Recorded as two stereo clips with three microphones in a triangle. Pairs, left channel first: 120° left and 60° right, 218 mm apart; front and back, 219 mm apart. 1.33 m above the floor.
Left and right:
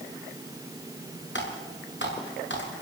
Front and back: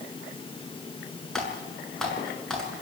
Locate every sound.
1.4 s typing on a keyboard: 90° left, 7.5 m